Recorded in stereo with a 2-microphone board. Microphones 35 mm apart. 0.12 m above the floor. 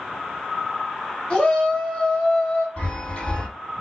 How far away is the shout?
About 2.0 m.